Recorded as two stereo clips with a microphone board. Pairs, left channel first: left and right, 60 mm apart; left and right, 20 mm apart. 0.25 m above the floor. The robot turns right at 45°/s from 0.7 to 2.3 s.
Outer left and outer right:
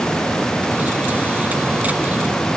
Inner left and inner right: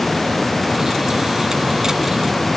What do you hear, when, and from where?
Only background noise.